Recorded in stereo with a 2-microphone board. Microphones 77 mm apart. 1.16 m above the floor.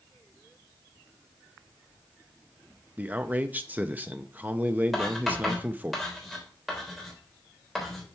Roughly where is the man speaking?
Right.